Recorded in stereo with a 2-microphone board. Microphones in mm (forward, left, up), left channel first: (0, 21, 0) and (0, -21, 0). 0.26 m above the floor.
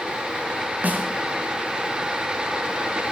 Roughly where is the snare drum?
Right.